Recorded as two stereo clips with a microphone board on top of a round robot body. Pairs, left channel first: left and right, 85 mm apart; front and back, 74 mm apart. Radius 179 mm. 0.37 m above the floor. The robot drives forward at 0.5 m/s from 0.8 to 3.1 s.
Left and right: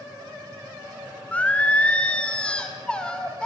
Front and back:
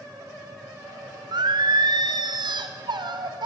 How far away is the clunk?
I don't hear a clunk.